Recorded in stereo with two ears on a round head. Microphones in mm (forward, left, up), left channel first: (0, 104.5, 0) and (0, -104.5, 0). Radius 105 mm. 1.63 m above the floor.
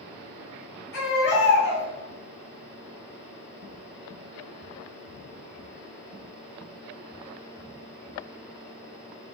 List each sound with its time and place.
0.9 s a baby crying: 50° left (ahead or behind), 1.8 m